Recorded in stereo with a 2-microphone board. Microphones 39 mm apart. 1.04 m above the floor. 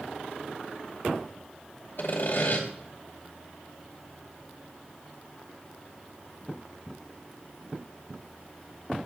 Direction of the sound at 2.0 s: 60° left (ahead or behind).